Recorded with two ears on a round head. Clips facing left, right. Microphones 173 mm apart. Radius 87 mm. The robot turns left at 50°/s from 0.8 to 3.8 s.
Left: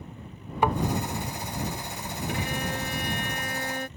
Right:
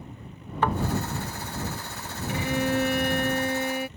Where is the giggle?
No giggle in this recording.